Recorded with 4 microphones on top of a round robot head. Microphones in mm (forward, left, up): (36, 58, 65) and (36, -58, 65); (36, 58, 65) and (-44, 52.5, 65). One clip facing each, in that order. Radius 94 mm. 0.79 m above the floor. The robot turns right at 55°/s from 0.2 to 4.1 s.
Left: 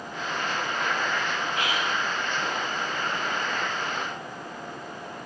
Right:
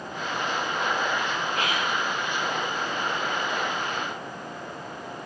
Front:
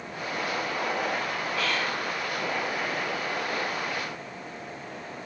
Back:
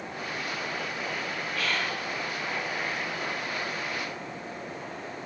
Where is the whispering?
140° right, 0.9 m; by 1.9 s 120° right, 0.9 m.